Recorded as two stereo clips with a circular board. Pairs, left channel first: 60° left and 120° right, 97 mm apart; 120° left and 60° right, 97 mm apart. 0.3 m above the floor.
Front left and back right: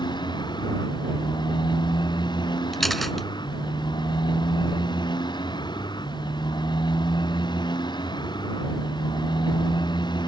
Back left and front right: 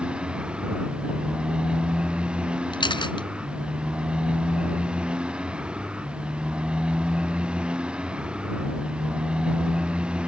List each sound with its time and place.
0.0 s a motorcycle: 20° left
2.7 s a camera shutter: 150° left